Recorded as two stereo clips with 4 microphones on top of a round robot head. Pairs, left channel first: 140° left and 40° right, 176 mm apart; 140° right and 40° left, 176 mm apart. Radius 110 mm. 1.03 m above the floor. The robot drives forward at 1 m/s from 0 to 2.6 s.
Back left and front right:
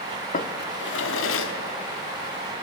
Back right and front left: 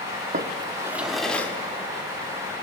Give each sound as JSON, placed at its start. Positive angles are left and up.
{"t": 0.3, "sound": "a drawer", "azimuth_deg": 90, "distance_m": 1.1}